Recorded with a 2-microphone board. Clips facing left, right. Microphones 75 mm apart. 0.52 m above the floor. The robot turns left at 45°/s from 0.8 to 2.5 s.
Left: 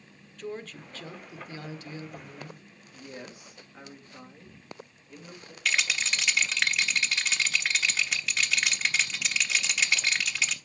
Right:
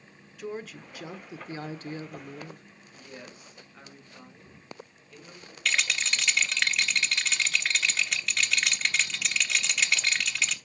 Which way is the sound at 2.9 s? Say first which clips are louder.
Left 3 dB; 15° left (ahead or behind).